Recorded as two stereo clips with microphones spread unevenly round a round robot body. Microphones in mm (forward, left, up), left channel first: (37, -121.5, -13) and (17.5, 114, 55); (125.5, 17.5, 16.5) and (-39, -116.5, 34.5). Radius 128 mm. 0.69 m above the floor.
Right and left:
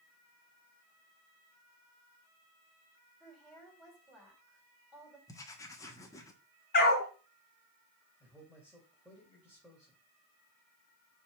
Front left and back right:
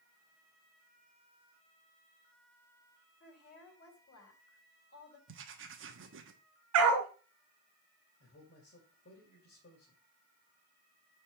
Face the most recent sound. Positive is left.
turn(degrees=5)